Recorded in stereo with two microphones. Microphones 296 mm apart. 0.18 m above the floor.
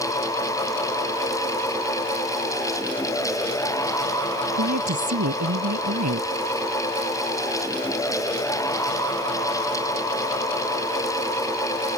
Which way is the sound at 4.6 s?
65° right (ahead or behind).